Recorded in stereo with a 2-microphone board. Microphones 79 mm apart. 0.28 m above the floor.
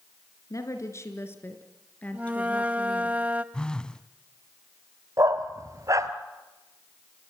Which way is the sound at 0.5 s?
45° left (ahead or behind).